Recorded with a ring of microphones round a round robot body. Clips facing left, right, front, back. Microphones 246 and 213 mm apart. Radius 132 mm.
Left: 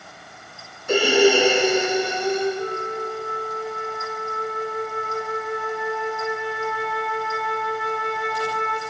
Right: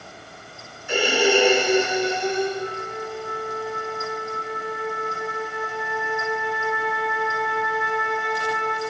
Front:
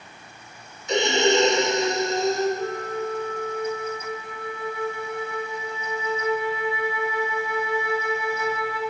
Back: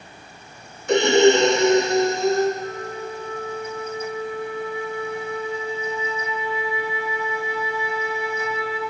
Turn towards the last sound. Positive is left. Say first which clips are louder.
# left 3 dB, front 2 dB
turn(degrees=40)